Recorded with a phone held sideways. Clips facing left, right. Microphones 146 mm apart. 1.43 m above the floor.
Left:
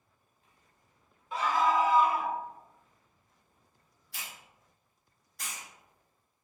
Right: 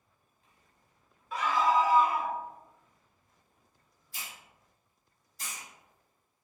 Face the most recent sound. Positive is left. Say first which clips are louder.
# even
turn(degrees=80)